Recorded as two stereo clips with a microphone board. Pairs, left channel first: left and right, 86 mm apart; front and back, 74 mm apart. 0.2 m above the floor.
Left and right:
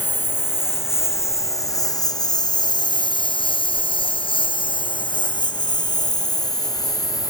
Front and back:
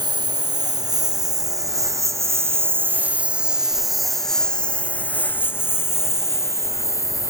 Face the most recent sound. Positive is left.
turn(degrees=45)